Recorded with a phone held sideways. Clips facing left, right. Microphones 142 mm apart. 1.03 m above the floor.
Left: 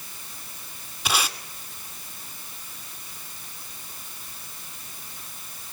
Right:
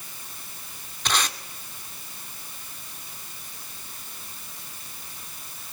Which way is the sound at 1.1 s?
10° left (ahead or behind).